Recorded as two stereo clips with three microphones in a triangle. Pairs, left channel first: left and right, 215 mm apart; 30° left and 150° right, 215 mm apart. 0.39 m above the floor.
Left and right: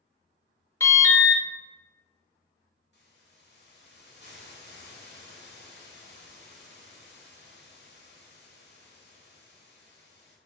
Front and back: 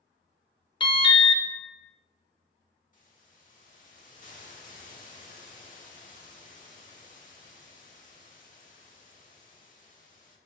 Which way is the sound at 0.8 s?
35° left.